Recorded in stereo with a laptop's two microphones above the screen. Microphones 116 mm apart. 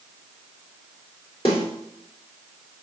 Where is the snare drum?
55° left (ahead or behind), 2.5 m.